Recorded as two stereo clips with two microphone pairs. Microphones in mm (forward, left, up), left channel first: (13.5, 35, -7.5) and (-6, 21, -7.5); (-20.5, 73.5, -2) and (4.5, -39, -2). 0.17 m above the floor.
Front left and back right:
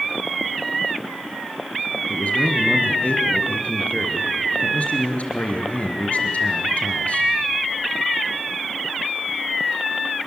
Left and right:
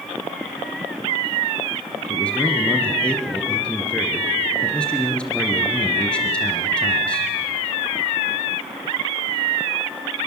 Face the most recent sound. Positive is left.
turn(degrees=25)